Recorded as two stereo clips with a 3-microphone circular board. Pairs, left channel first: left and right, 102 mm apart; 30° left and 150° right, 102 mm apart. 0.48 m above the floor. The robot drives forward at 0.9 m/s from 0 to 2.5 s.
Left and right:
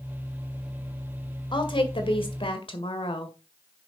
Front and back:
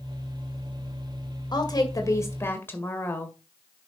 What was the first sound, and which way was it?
A woman speaking, 65° left.